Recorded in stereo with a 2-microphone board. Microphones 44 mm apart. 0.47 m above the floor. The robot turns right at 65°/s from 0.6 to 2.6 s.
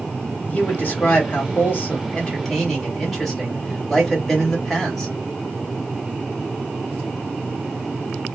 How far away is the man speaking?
About 1.9 m.